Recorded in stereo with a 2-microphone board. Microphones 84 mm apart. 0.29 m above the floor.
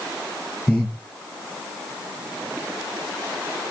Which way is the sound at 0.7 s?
10° left (ahead or behind).